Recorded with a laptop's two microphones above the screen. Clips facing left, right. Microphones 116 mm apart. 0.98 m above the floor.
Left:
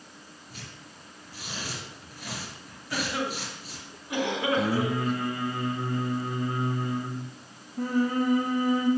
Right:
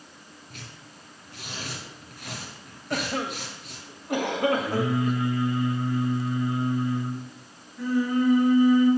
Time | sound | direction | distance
0.5 | tearing paper | 60° right (ahead or behind) | 3.5 m
2.9 | a cough | 50° right (ahead or behind) | 1.4 m
4.6 | singing | 50° left (ahead or behind) | 1.1 m